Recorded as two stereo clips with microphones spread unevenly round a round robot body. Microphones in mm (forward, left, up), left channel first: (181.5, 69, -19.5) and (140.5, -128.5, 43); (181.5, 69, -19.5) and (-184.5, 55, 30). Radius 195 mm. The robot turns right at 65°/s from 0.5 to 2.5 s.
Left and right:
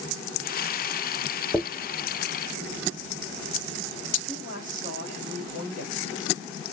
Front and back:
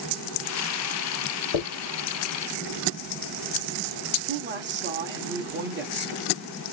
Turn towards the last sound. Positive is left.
turn(degrees=120)